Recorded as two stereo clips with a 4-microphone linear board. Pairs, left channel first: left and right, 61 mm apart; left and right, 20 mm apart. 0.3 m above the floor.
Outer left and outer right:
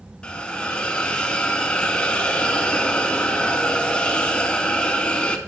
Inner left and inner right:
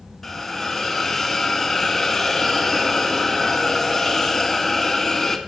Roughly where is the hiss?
Centre.